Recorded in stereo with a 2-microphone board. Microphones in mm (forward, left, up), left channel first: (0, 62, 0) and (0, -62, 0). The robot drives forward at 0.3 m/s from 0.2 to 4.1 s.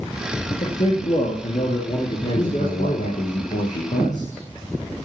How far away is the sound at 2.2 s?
About 7 m.